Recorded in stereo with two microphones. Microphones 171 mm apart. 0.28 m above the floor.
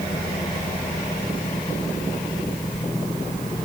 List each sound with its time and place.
Only background noise.